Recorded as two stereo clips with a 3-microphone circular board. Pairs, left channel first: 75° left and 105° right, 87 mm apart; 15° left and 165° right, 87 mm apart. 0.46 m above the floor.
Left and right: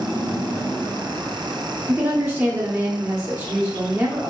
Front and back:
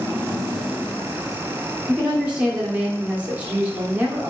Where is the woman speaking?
110° right, 1.2 m.